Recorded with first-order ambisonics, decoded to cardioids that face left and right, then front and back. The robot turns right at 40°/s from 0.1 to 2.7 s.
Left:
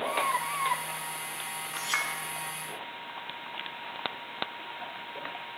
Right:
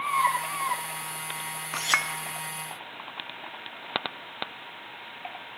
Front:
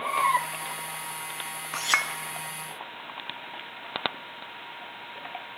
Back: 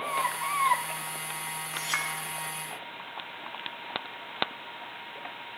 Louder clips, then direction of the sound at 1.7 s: Right 5 dB, front 6 dB; 55° right.